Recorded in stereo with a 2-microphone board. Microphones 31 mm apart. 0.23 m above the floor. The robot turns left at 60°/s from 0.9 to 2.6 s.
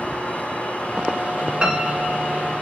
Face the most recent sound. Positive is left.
turn(degrees=-90)